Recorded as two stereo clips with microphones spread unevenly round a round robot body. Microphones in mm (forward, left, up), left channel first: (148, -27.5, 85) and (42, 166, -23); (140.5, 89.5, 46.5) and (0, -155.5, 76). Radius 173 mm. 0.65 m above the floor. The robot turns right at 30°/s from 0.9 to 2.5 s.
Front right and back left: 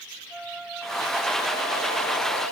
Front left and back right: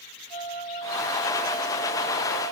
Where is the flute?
150° right; by 2.5 s 100° right.